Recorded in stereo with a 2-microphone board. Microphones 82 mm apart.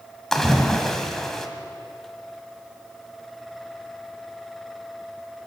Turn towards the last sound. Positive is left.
turn(degrees=5)  # may be behind; listen again after turning